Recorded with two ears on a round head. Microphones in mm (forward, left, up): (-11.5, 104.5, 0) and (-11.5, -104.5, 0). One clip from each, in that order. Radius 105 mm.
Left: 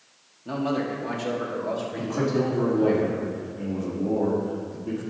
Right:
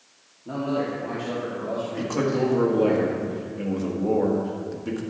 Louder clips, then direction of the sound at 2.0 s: Right 2 dB; 65° right (ahead or behind).